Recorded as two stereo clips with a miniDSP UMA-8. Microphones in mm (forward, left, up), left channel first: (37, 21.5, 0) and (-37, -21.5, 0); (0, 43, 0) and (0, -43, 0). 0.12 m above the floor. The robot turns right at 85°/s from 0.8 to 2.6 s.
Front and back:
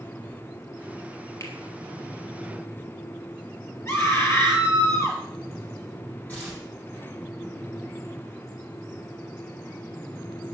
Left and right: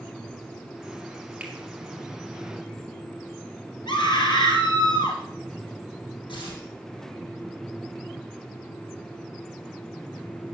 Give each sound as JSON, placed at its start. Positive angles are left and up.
{"t": 1.4, "sound": "a finger snap", "azimuth_deg": -15, "distance_m": 3.0}
{"t": 3.9, "sound": "a scream", "azimuth_deg": 85, "distance_m": 3.5}
{"t": 6.3, "sound": "tearing paper", "azimuth_deg": 100, "distance_m": 3.5}